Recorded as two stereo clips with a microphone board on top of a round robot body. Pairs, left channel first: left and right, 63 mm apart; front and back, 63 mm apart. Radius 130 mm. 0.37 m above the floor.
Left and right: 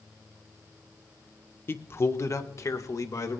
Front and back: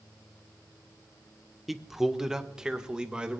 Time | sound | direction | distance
1.7 | a man speaking | 95° left | 1.3 m